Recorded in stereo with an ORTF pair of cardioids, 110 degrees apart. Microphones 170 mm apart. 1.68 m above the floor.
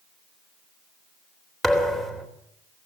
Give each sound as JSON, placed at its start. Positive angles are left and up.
{"t": 1.6, "sound": "a thud", "azimuth_deg": 0, "distance_m": 3.5}